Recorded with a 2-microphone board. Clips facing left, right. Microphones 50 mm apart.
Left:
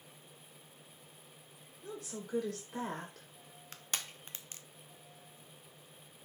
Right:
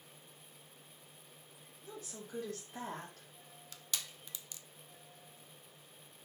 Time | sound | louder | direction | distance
1.8 | a woman speaking | left 5 dB | 80° left | 2.5 m
3.7 | crushing | left 3 dB | 40° left (ahead or behind) | 0.5 m